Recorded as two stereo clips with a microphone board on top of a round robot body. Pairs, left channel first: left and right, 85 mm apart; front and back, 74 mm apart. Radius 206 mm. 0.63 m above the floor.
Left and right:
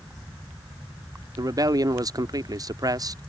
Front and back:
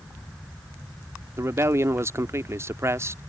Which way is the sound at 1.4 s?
130° right.